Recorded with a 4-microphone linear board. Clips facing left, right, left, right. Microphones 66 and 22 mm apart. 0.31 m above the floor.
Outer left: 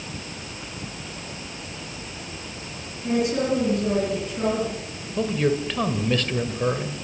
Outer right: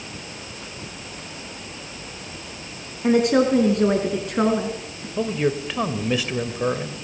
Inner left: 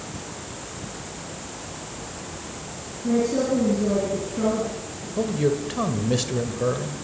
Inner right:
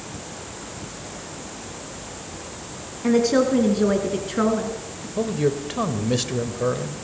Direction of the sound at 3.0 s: 60° right (ahead or behind).